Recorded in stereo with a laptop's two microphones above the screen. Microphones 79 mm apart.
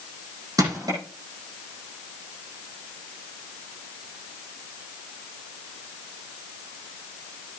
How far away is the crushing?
About 9.5 m.